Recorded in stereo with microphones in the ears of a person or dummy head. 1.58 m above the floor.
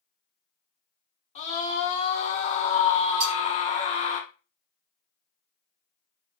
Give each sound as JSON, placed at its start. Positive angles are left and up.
{"t": 1.4, "sound": "a scream", "side_deg": 40, "distance_m": 0.8}
{"t": 3.2, "sound": "cutlery clinking", "side_deg": -50, "distance_m": 1.1}